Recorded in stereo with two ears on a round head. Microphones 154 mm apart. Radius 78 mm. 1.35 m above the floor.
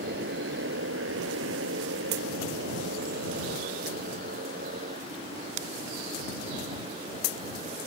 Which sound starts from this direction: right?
A motorcycle, at 0.0 s.